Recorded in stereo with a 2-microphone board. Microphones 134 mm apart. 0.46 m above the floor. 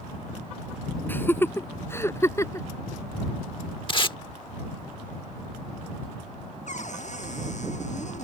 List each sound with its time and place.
1.1 s laughter: 15° left (ahead or behind); by 2.7 s 20° left (ahead or behind)
3.9 s tape being pulled: 40° left (ahead or behind)
6.7 s a cupboard door: 60° left (ahead or behind)